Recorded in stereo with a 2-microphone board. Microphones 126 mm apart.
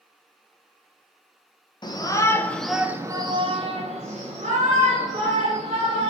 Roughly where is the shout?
Left.